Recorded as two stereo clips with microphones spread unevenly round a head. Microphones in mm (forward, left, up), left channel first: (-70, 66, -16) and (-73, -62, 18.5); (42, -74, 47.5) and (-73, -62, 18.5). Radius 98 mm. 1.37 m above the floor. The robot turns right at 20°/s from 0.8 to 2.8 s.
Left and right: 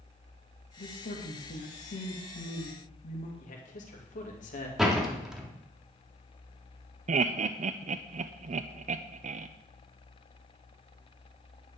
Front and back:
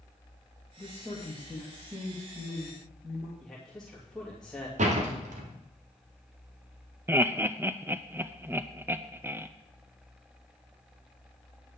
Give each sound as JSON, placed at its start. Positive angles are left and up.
{"t": 0.8, "sound": "a man speaking", "azimuth_deg": 75, "distance_m": 2.0}
{"t": 3.4, "sound": "a man speaking", "azimuth_deg": 85, "distance_m": 3.0}
{"t": 4.8, "sound": "a door slam", "azimuth_deg": -175, "distance_m": 2.5}
{"t": 7.1, "sound": "laughter", "azimuth_deg": -125, "distance_m": 0.5}